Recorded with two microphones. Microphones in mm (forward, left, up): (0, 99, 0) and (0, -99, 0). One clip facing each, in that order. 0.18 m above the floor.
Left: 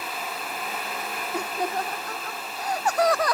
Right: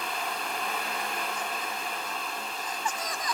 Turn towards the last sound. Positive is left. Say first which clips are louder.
# left 8 dB
turn(degrees=70)  # may be behind; listen again after turning